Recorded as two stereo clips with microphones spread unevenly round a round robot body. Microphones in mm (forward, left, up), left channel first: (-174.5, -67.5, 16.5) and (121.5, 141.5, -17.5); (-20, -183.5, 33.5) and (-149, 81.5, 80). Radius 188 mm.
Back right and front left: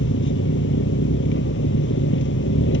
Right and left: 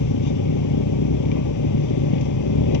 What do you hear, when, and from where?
0.0 s an engine running: 85° right